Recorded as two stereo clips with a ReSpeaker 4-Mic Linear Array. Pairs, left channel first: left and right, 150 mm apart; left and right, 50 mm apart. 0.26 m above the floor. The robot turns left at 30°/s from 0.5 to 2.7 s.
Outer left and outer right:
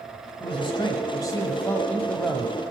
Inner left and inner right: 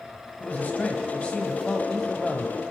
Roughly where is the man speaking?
Ahead left.